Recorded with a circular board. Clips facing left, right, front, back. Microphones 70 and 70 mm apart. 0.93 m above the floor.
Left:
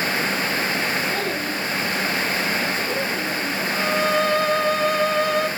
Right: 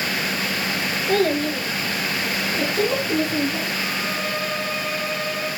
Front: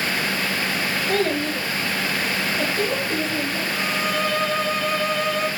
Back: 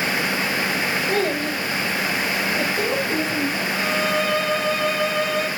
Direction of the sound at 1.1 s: 100° right.